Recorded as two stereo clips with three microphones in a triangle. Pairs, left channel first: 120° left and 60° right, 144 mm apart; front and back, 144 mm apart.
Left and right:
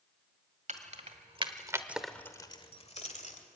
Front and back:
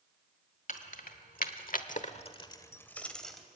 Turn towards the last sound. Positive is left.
turn(degrees=90)